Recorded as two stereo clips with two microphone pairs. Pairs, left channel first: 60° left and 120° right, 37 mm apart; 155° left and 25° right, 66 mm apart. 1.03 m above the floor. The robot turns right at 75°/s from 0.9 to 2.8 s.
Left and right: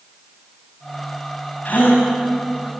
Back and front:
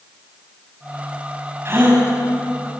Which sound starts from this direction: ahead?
A gasp, at 1.6 s.